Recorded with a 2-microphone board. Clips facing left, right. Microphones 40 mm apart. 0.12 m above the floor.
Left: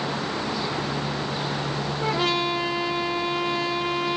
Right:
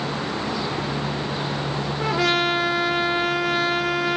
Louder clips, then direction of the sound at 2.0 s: Right 3 dB; 80° right.